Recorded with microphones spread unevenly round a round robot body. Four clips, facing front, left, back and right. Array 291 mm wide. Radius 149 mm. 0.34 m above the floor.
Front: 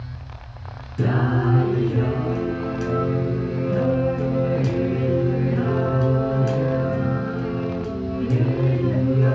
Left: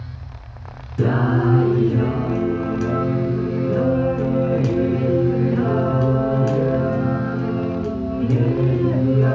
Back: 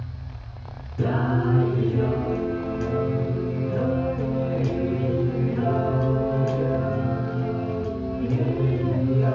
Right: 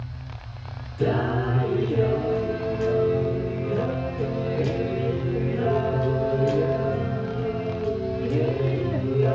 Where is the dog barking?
No dog barking in this recording.